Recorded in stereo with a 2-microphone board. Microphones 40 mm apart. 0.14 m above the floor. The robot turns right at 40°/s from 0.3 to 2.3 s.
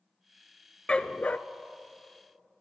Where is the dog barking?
25° left (ahead or behind), 0.5 m; by 1.4 s 40° left (ahead or behind), 0.5 m.